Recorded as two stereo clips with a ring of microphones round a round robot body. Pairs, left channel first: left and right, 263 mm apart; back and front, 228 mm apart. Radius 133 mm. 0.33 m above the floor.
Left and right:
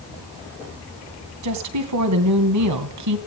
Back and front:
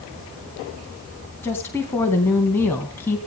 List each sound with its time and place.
1.4 s a woman speaking: 100° right, 3 m